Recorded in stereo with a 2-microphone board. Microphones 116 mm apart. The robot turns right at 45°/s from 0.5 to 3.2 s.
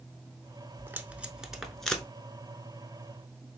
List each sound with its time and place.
0.8 s tape being pulled: 20° right (ahead or behind), 0.6 m; by 2.0 s 10° left (ahead or behind), 0.6 m